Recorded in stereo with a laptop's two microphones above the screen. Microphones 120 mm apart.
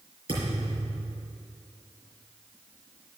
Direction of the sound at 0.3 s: 50° right (ahead or behind).